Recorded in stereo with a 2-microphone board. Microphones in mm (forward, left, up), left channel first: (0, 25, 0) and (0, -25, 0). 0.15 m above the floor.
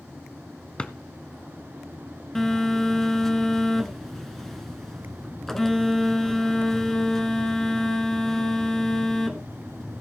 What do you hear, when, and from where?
0.8 s a drawer: 20° left (ahead or behind), 0.6 m
2.4 s a phone buzzing: 10° left (ahead or behind), 1.2 m